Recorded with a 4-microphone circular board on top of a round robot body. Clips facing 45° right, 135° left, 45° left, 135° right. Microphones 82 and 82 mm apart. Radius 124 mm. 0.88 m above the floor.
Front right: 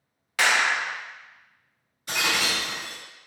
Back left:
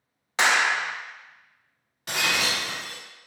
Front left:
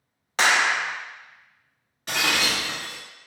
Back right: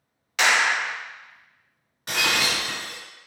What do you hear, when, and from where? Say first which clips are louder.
0.4 s a clap: back left 1 dB, even; 80° left, 0.6 m
2.1 s breaking glass: even, even; 145° left, 1.3 m